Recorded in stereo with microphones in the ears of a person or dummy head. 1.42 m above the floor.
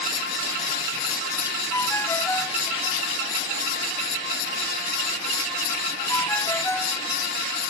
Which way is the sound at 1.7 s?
5° left (ahead or behind).